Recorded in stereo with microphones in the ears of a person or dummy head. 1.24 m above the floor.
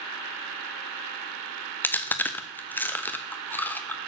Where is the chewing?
5° left (ahead or behind), 0.6 m.